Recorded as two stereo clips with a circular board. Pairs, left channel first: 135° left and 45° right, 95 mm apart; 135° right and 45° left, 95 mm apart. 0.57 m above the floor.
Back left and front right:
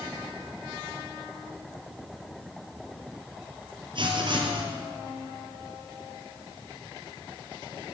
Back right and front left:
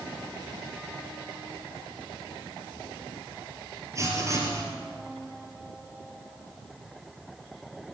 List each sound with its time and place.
4.0 s writing: 10° right, 3 m